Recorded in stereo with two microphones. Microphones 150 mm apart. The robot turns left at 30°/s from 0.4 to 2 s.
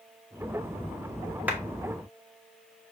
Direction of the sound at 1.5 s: 10° right (ahead or behind).